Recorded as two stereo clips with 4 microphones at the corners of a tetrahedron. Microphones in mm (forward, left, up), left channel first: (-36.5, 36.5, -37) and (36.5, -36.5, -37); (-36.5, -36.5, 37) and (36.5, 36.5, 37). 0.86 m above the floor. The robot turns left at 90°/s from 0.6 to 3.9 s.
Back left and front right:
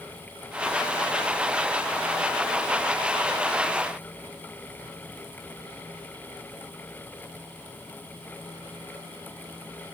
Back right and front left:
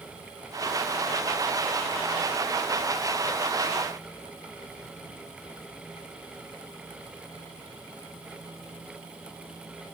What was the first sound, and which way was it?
Only background noise.